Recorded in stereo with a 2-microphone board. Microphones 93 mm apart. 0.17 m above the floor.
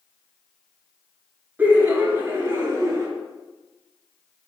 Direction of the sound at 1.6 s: 20° right (ahead or behind).